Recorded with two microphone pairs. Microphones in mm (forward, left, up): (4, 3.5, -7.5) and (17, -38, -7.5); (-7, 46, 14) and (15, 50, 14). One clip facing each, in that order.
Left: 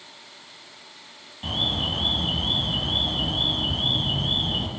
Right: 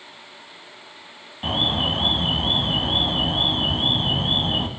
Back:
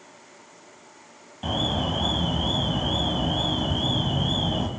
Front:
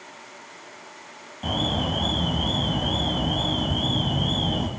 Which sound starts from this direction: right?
An alarm, at 1.4 s.